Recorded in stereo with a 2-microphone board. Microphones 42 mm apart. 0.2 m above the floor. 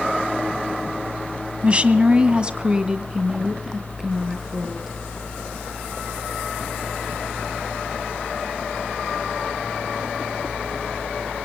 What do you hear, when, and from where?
1.6 s a woman speaking: 30° right (ahead or behind), 1.6 m; by 5.0 s 10° right (ahead or behind), 5 m